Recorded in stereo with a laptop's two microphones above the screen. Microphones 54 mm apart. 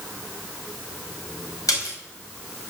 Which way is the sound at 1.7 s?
90° left.